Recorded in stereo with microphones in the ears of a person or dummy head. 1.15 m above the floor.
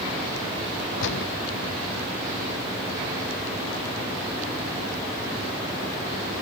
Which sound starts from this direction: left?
A gunshot, at 1.0 s.